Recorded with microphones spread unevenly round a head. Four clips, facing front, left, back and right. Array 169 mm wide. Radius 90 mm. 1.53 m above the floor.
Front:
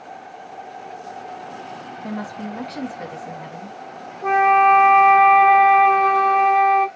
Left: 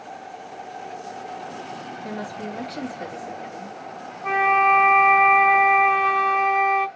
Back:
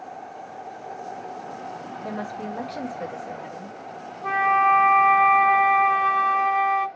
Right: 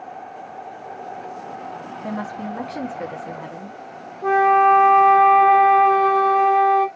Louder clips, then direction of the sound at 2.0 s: Right 4 dB, front 2 dB; 50° right.